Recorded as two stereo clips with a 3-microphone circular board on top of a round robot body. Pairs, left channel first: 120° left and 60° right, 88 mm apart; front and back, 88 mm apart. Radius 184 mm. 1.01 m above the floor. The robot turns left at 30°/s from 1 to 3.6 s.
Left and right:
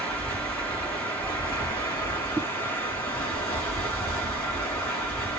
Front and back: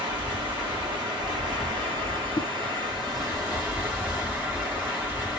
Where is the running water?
170° right, 1.5 m; by 5.4 s 115° left, 1.5 m.